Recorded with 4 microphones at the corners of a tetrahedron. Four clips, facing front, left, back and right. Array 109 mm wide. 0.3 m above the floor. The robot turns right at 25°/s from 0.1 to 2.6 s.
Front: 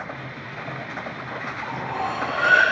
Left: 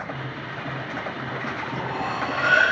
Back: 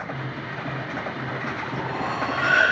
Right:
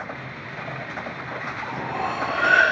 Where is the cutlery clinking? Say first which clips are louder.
Right 3 dB, front 3 dB; 115° right, 3 m; by 2.6 s 90° right, 3 m.